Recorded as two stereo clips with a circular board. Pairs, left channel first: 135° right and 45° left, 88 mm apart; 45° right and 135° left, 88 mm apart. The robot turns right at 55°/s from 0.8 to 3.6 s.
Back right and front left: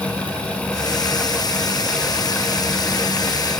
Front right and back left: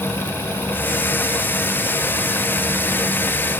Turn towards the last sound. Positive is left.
No sound to turn to.